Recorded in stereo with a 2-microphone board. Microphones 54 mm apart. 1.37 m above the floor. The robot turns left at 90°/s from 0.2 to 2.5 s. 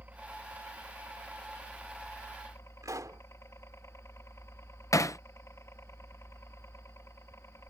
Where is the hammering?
70° left (ahead or behind).